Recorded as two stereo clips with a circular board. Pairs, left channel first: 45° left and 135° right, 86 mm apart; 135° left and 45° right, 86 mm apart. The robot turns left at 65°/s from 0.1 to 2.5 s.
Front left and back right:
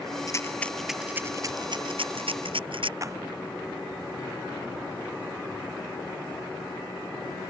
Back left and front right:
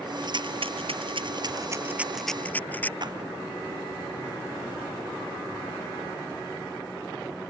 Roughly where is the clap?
Right.